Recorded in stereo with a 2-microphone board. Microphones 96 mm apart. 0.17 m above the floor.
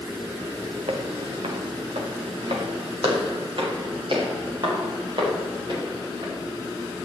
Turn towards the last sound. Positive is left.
turn(degrees=-50)  # may be behind; listen again after turning